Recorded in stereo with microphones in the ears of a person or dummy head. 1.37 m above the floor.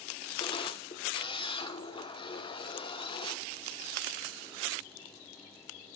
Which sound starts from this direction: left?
A camera shutter, at 0.4 s.